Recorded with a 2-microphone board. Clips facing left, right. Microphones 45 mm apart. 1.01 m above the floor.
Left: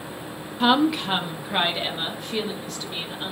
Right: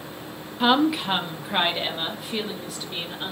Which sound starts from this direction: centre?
A woman speaking, at 0.6 s.